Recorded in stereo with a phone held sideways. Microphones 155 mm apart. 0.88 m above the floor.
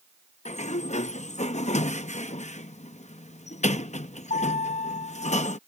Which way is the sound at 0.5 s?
50° left (ahead or behind).